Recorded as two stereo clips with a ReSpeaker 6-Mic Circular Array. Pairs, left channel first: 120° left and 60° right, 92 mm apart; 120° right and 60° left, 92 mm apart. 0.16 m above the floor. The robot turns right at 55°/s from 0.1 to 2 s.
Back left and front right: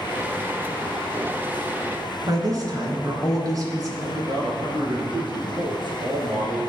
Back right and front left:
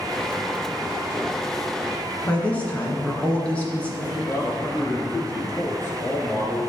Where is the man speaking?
55° right, 2 m.